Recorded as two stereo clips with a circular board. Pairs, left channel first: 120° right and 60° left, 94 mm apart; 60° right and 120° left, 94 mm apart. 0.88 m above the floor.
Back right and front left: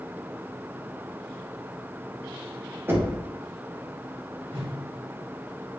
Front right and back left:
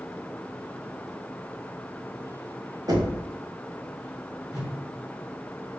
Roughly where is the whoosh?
Ahead left.